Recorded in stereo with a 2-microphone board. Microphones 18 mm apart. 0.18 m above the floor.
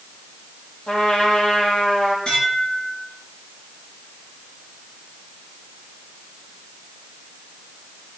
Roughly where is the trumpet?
Left.